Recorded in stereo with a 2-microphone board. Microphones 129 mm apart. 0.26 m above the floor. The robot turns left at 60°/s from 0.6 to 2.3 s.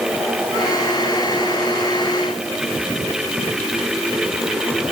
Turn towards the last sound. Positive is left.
No sound to turn to.